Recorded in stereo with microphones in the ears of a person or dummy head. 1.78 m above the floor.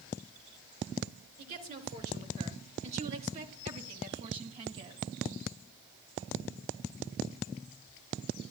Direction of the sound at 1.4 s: 50° right (ahead or behind).